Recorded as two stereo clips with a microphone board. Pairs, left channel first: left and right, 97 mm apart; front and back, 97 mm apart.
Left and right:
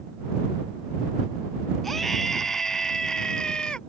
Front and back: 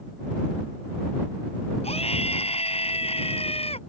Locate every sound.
1.8 s a scream: straight ahead; by 3.8 s 10° left